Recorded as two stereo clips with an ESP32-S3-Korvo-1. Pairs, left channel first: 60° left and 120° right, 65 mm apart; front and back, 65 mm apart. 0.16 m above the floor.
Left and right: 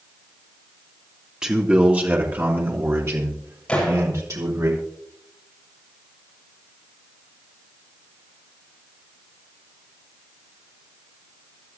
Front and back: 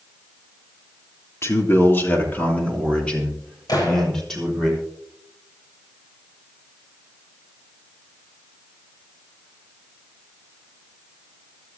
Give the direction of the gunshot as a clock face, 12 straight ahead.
12 o'clock.